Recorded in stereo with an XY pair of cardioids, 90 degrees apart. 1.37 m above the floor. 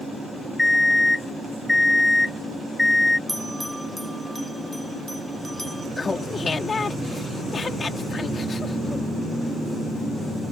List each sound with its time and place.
0.6 s an alarm clock: 15° left
3.3 s a bell: straight ahead
6.0 s laughter: 40° left